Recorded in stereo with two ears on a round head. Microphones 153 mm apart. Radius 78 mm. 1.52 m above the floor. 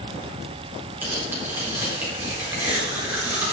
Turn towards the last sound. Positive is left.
turn(degrees=-10)  # may be behind; listen again after turning